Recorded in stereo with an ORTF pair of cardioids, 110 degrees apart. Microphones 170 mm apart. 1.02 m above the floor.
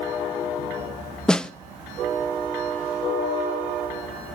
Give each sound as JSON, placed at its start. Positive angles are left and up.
{"t": 1.3, "sound": "a snare drum", "azimuth_deg": 5, "distance_m": 0.6}